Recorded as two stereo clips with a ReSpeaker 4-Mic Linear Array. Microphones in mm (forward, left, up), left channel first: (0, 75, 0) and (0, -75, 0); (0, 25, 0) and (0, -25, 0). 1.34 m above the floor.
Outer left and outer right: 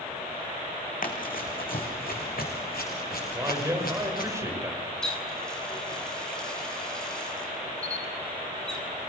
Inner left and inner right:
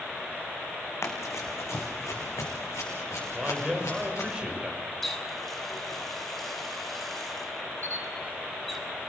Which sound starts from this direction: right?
A camera shutter, at 7.8 s.